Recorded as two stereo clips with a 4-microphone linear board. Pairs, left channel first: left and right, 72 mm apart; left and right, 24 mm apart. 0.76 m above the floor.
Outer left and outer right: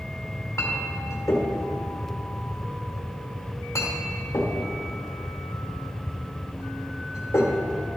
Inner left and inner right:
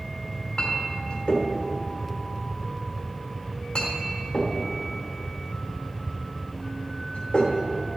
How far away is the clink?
About 1.3 m.